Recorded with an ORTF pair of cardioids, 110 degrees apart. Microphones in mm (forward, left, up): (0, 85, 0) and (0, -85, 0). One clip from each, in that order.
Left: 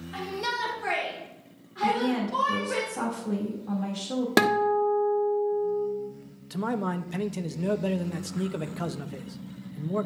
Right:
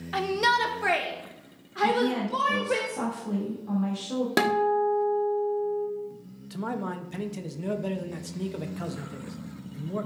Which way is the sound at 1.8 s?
15° left.